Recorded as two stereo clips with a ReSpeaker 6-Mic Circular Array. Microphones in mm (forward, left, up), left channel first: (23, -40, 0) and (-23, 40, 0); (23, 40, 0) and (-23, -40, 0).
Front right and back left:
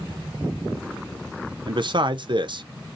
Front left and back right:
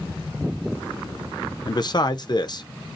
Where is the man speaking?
95° left, 0.6 m.